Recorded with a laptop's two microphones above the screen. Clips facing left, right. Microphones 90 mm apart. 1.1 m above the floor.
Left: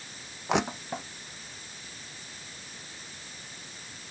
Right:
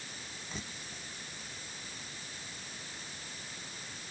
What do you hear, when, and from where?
0.5 s crushing: 85° left